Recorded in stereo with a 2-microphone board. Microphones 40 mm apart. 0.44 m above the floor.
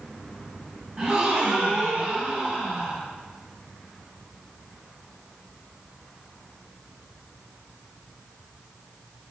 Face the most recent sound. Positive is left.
turn(degrees=-20)  # may be behind; listen again after turning